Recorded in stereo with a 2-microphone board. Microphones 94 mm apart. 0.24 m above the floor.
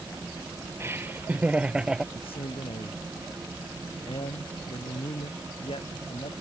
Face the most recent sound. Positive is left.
turn(degrees=80)